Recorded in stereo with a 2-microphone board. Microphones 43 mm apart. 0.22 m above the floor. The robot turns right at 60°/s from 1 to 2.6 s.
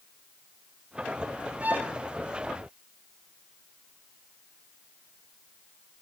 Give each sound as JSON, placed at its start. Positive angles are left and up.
{"t": 1.6, "sound": "a violin", "side_deg": -35, "distance_m": 1.7}